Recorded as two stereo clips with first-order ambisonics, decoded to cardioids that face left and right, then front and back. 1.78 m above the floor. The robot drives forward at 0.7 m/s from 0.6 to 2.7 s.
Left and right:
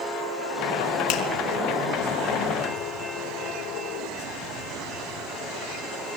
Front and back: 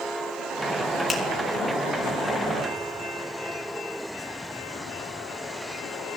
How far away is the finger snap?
About 3 m.